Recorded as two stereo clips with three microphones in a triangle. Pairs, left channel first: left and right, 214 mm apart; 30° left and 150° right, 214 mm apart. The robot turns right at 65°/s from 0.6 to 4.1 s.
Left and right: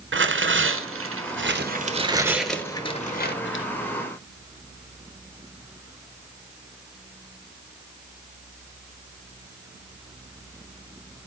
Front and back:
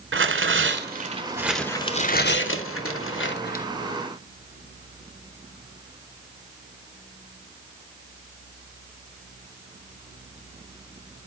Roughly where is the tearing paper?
Behind right.